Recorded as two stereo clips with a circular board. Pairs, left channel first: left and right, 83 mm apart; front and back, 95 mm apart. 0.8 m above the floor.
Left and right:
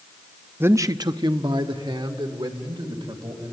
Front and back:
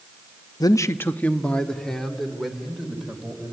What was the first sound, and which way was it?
A man speaking, 30° right.